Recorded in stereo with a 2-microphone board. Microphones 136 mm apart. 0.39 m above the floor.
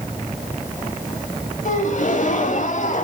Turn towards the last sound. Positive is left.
turn(degrees=65)  # may be behind; listen again after turning